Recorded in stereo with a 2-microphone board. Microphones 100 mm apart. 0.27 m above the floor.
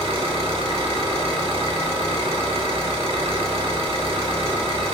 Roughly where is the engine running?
Right.